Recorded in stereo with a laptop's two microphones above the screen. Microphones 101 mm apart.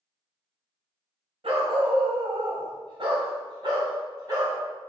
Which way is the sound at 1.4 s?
75° right (ahead or behind).